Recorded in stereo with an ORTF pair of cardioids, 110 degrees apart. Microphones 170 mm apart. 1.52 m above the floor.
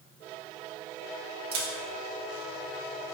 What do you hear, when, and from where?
1.5 s a camera shutter: 60° right, 1.2 m